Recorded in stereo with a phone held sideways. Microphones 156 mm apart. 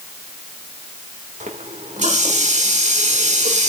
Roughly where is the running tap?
Right.